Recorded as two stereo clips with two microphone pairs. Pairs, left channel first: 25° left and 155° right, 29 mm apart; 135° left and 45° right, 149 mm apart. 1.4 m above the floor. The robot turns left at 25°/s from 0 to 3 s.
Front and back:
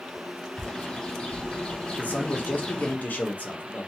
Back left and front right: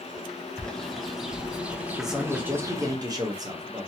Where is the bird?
55° left, 0.6 m; by 3.0 s 5° right, 0.6 m.